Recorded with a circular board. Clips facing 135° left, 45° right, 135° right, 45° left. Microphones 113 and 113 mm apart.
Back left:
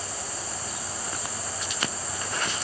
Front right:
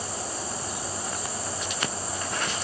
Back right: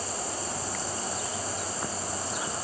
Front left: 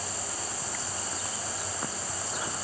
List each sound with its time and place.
Only background noise.